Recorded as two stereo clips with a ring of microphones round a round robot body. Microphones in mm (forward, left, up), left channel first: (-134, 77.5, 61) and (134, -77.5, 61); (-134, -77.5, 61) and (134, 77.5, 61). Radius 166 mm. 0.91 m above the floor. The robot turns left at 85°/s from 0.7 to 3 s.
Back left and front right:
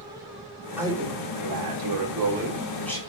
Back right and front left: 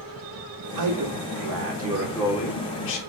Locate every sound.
0.8 s a man speaking: 55° left, 3.5 m; by 3.0 s 135° right, 3.5 m